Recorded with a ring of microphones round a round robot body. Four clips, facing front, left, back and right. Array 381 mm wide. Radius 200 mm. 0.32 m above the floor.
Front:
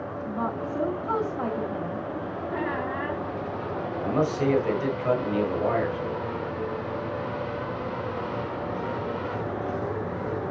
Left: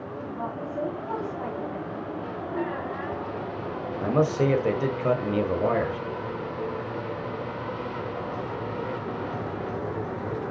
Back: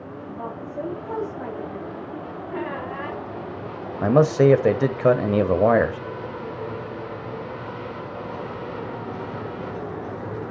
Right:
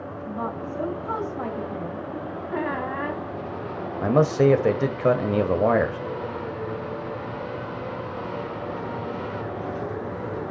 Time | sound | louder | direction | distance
0.3 | a woman speaking | right 3 dB, front 4 dB | 40° right | 3.5 m
2.5 | a squeak | right 4 dB, even | 80° right | 2 m
4.0 | a man speaking | right 4 dB, back 9 dB | 160° right | 1.4 m